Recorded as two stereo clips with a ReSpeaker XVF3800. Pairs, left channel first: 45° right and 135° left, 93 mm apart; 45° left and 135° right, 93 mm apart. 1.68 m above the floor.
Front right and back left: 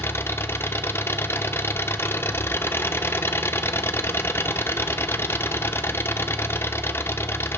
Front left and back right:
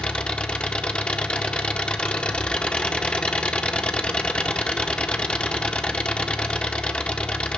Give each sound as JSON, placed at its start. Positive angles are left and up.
{"t": 0.0, "sound": "an engine running", "azimuth_deg": -20, "distance_m": 0.7}